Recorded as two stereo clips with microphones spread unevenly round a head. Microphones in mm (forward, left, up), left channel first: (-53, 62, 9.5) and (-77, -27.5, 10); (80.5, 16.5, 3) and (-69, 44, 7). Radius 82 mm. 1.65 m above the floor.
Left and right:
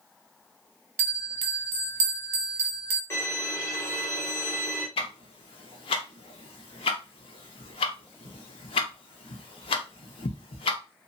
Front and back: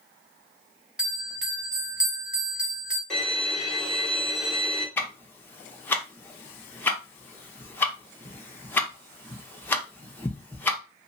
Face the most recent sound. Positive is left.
turn(degrees=65)